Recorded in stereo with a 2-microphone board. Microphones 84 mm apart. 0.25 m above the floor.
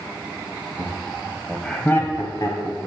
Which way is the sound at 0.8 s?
35° right (ahead or behind).